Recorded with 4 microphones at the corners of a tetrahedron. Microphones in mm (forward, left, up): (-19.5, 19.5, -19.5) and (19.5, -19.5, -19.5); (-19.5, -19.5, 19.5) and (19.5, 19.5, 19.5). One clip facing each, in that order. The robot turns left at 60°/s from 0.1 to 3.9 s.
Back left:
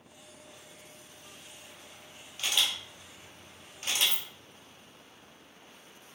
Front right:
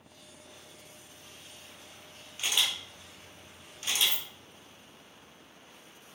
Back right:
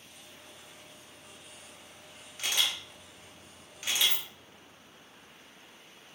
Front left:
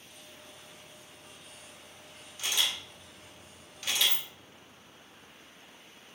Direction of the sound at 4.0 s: 100° right.